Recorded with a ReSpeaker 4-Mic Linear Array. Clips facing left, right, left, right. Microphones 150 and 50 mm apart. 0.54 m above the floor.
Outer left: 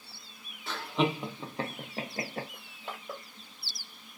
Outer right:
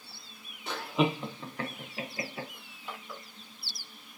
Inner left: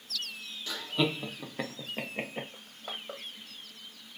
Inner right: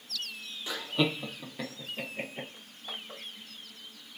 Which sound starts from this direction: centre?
Laughter, at 0.7 s.